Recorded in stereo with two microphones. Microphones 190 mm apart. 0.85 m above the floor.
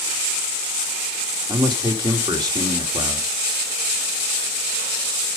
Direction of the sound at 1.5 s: 20° right (ahead or behind).